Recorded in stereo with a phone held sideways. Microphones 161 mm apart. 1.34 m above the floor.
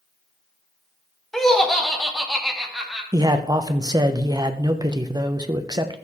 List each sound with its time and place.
1.3 s laughter: 5° left (ahead or behind), 1.4 m; by 3.0 s centre (ahead or behind), 2.5 m
3.1 s a man speaking: 25° right (ahead or behind), 0.8 m